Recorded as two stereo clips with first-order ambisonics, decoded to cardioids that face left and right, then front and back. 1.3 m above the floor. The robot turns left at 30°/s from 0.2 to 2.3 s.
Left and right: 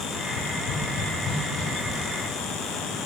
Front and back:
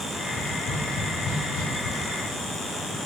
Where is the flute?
No flute in this recording.